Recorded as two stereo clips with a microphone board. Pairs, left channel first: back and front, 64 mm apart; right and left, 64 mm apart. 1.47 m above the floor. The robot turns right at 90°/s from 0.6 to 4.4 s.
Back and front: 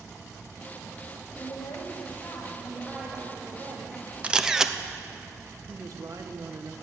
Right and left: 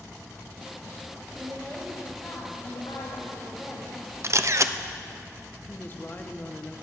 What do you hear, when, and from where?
1.4 s a woman speaking: 140° left, 2.5 m; by 4.0 s 20° left, 2.5 m
4.2 s a camera shutter: 65° left, 0.6 m; by 4.7 s 80° left, 0.6 m
5.7 s a woman speaking: 30° right, 1.2 m